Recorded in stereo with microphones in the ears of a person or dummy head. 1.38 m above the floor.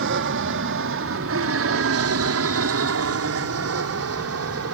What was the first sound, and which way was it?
An aircraft, 65° right (ahead or behind).